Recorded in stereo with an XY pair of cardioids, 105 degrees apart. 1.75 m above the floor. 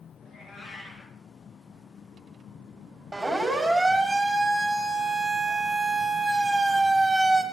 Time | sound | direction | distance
0.2 | a cat meowing | 40° left | 5.5 m
3.1 | a siren | 10° right | 6 m